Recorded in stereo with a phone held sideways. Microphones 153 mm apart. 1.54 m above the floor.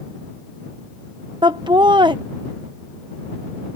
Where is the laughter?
30° right (ahead or behind).